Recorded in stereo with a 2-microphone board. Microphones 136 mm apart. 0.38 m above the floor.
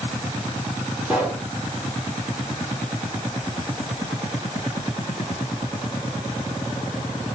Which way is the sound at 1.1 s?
10° right (ahead or behind).